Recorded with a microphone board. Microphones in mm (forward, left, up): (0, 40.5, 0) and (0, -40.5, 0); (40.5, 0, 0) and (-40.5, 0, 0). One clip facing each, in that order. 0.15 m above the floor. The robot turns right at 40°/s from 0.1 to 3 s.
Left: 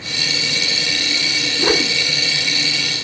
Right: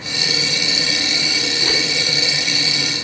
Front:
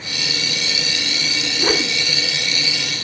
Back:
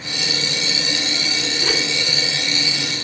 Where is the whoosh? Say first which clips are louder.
Left 8 dB, front 5 dB; 50° left, 0.5 m; by 1.9 s 65° left, 0.5 m.